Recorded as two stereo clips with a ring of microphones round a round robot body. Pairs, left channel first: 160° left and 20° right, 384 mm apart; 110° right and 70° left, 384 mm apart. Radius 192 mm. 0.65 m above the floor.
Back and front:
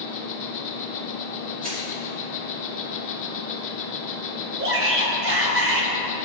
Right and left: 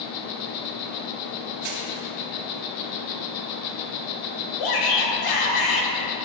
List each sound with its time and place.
0.0 s an insect: 145° right, 1.1 m
1.6 s crushing: 45° left, 4 m
4.6 s a shout: 80° right, 3 m